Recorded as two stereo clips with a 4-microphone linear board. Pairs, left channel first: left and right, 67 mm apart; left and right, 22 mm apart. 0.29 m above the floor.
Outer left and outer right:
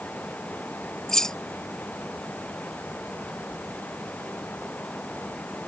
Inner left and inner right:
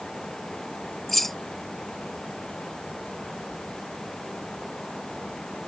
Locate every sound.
1.1 s keys jangling: 10° left (ahead or behind)